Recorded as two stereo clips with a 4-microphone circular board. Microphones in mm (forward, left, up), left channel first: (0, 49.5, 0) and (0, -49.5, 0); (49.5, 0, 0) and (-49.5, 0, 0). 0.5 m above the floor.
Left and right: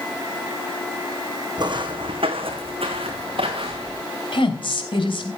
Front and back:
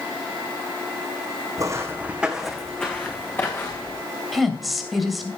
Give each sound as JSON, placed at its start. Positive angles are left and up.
{"t": 1.6, "sound": "footsteps", "azimuth_deg": -130, "distance_m": 2.0}
{"t": 4.3, "sound": "a woman speaking", "azimuth_deg": 90, "distance_m": 2.5}